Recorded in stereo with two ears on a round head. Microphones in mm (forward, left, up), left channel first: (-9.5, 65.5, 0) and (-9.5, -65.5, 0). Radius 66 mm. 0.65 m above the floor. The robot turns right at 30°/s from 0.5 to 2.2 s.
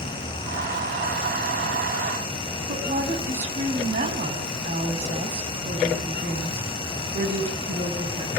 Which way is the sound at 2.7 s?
50° right (ahead or behind).